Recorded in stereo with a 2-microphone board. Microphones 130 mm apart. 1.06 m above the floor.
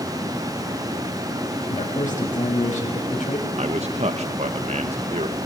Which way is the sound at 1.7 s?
85° left.